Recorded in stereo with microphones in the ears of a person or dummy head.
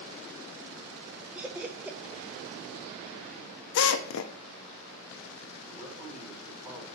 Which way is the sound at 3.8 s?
70° left (ahead or behind).